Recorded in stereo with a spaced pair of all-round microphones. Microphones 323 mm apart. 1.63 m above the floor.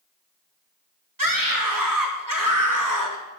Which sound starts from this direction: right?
A scream, at 1.2 s.